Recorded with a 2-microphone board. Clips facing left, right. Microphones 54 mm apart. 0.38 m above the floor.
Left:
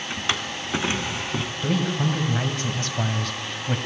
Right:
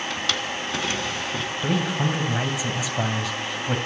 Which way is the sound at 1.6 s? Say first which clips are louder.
Even; 10° right (ahead or behind).